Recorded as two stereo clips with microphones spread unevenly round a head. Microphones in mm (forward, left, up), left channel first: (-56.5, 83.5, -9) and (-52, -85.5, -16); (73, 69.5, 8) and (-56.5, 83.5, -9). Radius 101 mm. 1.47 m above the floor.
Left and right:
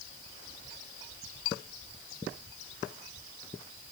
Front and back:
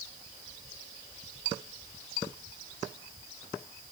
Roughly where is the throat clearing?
No throat clearing in this recording.